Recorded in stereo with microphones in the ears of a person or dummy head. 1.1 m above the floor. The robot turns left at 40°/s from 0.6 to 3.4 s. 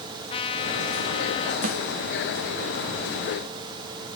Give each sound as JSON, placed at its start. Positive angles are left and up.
{"t": 0.3, "sound": "a trumpet", "side_deg": 20, "distance_m": 0.7}
{"t": 1.6, "sound": "a snare drum", "side_deg": -45, "distance_m": 1.3}